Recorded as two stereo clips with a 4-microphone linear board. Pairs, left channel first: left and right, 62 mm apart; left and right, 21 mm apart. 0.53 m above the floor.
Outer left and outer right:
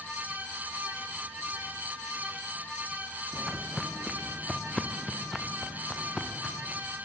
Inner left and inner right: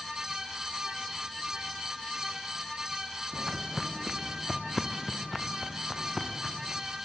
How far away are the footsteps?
About 2.0 m.